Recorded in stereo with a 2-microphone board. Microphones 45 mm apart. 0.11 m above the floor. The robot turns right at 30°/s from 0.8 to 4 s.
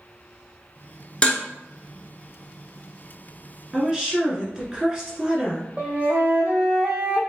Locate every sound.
1.2 s dishes clattering: 20° left (ahead or behind), 0.9 m; by 1.4 s 25° left (ahead or behind), 0.9 m
3.7 s a woman speaking: 15° right (ahead or behind), 1.4 m
5.8 s a flute: 35° right (ahead or behind), 1.6 m